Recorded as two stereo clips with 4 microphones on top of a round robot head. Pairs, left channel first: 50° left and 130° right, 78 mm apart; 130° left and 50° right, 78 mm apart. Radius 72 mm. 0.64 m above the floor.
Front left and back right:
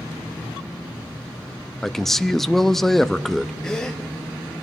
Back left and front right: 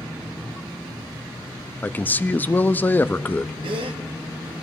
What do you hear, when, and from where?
1.8 s a man speaking: 130° left, 0.5 m
3.6 s a gasp: 35° right, 0.7 m